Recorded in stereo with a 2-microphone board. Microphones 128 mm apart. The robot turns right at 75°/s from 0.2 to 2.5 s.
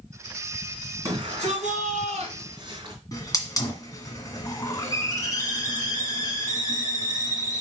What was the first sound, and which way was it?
A shout, 155° right.